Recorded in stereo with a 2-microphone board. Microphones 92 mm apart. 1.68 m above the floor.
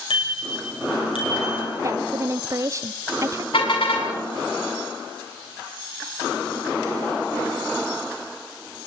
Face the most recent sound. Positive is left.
turn(degrees=70)  # may be behind; listen again after turning